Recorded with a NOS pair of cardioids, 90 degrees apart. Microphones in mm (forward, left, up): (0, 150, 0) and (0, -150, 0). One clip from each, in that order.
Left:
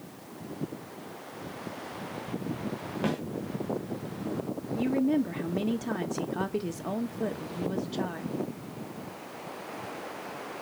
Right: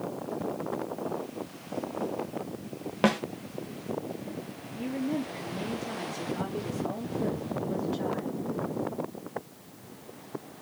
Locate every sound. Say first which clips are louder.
3.0 s a snare drum: right 7 dB; 50° right, 1.1 m
4.7 s a woman speaking: left 5 dB; 50° left, 2.5 m